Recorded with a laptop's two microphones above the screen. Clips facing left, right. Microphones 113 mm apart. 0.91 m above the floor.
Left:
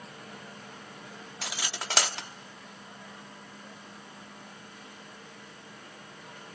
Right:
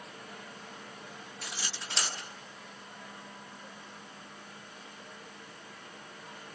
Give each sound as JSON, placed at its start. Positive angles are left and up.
{"t": 1.4, "sound": "cutlery clinking", "side_deg": 85, "distance_m": 1.2}